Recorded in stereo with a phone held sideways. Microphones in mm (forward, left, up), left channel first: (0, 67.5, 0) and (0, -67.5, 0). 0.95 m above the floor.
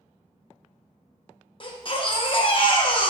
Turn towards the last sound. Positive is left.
turn(degrees=40)  # may be behind; listen again after turning